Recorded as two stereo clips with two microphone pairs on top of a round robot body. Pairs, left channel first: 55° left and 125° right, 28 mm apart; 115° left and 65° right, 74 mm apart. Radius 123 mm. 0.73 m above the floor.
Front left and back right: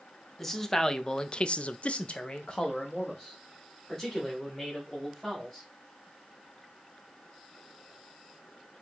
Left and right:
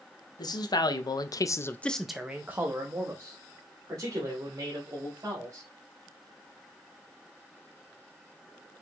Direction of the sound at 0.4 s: 135° left.